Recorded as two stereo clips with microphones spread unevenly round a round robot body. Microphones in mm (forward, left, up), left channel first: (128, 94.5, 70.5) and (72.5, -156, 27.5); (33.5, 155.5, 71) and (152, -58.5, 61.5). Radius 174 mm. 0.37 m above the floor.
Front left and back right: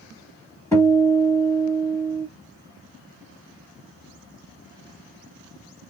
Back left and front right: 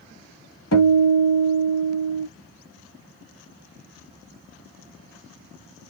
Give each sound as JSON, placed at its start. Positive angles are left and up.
{"t": 0.7, "sound": "a guitar", "azimuth_deg": 160, "distance_m": 0.8}